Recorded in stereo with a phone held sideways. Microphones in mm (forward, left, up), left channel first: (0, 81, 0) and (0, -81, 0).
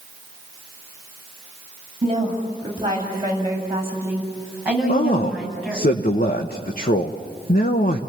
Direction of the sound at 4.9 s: 65° left (ahead or behind).